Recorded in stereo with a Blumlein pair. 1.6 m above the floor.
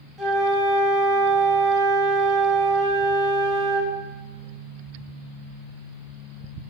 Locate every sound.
0.2 s a flute: 5° right, 1.2 m